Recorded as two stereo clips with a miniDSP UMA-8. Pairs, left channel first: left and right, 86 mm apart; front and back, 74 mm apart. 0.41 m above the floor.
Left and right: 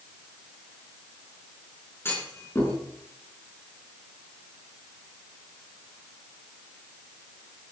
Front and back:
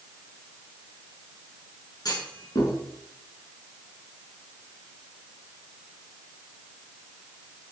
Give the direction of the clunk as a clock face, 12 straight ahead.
11 o'clock.